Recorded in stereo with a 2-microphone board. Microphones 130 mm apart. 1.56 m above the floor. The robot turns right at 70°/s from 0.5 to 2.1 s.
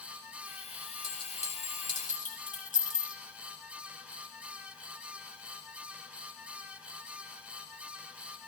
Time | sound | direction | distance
1.0 | a clink | 25° left (ahead or behind) | 3 m